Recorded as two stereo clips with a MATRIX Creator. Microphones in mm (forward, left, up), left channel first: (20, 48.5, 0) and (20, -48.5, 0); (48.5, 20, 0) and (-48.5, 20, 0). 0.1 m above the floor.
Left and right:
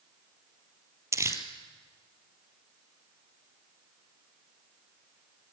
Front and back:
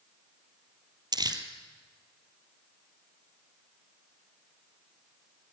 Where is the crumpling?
145° right, 2.5 m.